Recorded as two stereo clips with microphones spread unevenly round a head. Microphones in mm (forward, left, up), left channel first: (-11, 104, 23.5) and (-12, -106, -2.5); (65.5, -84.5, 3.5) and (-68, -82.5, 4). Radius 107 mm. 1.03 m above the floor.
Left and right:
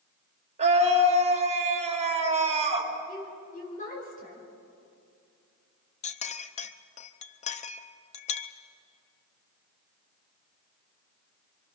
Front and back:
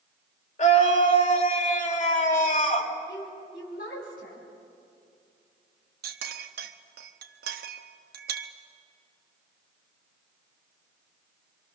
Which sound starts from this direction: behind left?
A clink, at 6.0 s.